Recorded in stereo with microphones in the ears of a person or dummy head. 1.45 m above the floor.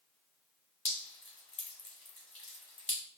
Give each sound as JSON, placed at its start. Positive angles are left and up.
{"t": 0.8, "sound": "dripping", "side_deg": 10, "distance_m": 1.2}